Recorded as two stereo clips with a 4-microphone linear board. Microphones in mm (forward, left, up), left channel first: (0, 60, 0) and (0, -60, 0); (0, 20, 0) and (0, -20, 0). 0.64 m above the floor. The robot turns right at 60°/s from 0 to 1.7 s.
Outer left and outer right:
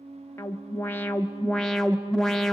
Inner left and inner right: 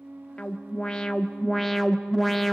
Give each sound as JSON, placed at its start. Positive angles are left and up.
{"t": 0.4, "sound": "an alarm", "side_deg": 20, "distance_m": 1.0}